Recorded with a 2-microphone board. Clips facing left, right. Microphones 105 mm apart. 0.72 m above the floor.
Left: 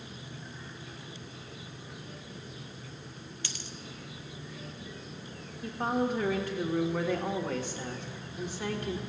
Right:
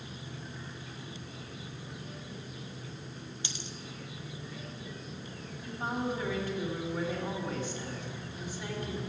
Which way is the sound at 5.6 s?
70° left (ahead or behind).